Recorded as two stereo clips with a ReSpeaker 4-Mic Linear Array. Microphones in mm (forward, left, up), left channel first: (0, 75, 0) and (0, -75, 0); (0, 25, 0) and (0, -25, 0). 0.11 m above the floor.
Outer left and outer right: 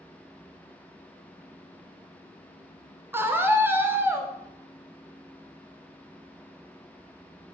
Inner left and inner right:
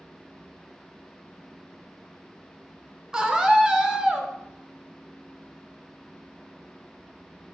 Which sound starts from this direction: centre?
A scream, at 3.1 s.